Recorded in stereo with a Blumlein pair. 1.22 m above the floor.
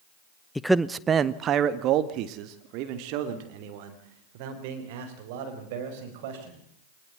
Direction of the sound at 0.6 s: 5° left.